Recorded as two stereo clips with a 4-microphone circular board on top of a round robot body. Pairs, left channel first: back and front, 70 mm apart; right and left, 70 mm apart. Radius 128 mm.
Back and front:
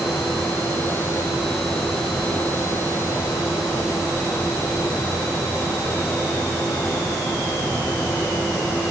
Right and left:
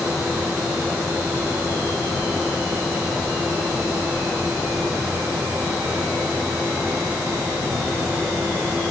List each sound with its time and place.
Only background noise.